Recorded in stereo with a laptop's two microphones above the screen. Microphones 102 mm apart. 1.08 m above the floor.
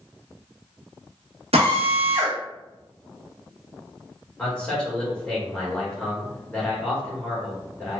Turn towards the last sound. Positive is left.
turn(degrees=10)  # may be behind; listen again after turning